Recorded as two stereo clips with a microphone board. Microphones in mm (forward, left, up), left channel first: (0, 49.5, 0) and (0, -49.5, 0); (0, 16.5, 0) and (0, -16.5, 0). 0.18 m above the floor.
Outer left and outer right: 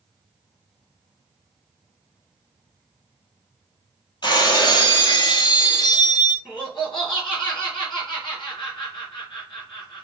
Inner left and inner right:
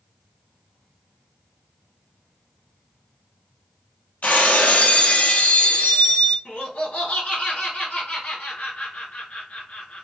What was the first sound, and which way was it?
Breaking glass, 50° left (ahead or behind).